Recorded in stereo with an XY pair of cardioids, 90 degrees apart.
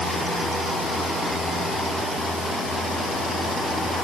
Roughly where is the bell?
I don't hear a bell.